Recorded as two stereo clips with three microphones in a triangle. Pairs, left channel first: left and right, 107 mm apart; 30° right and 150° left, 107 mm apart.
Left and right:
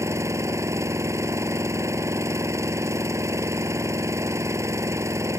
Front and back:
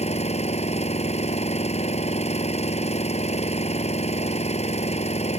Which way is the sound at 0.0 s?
25° right.